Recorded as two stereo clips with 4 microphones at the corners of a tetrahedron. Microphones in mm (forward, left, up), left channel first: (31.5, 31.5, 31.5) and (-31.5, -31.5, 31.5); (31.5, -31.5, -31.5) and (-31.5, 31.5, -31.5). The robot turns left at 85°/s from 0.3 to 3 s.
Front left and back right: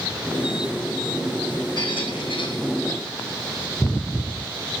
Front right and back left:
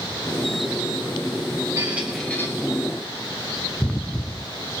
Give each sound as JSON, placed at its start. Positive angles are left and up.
{"t": 1.8, "sound": "a squeak", "azimuth_deg": 80, "distance_m": 2.0}